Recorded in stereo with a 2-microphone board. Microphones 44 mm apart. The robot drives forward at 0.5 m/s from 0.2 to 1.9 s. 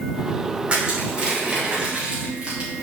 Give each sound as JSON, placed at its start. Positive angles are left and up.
{"t": 0.7, "sound": "crushing", "side_deg": -25, "distance_m": 2.5}